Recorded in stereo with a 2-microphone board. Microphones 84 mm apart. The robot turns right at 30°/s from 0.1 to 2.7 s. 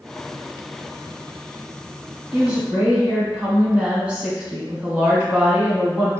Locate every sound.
2.3 s a woman speaking: 15° right (ahead or behind), 1.2 m; by 6.1 s 10° right (ahead or behind), 1.2 m